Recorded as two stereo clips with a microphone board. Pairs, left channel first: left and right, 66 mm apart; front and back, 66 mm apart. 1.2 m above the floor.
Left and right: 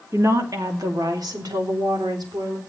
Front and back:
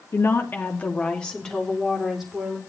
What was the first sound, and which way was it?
A woman speaking, 45° right.